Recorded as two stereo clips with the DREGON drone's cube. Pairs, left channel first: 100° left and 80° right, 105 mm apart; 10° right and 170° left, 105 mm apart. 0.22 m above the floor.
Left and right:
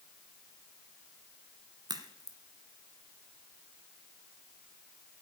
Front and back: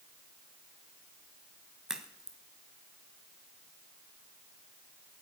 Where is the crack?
110° right, 1.4 m.